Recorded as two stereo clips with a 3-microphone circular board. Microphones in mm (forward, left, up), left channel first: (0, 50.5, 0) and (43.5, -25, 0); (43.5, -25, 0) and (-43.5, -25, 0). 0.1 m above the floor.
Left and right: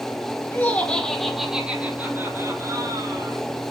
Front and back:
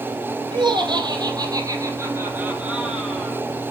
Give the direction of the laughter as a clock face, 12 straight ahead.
6 o'clock.